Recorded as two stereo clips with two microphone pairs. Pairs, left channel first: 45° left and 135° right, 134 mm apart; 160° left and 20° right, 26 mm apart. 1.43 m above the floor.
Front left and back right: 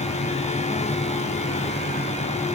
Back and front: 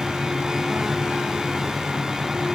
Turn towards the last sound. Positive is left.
No sound to turn to.